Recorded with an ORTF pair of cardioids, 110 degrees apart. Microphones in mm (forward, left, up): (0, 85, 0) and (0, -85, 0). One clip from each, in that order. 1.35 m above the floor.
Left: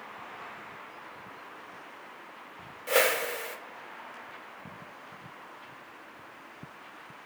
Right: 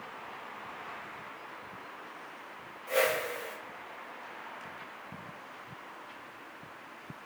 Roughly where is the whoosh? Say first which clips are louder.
Left 3 dB; ahead left.